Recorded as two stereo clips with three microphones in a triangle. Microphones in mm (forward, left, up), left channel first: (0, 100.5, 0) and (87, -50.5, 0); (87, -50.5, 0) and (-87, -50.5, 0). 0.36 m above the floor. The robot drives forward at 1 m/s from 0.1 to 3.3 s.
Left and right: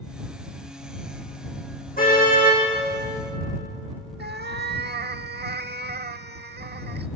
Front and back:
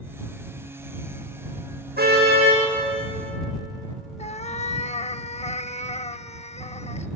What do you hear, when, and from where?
2.0 s a car horn: 155° left, 7.5 m
4.2 s a cat meowing: 50° right, 0.6 m